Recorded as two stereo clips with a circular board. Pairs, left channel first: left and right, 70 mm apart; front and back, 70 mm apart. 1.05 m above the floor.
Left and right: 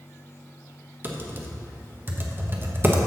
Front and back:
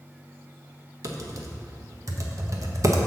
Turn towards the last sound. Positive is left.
turn(degrees=-145)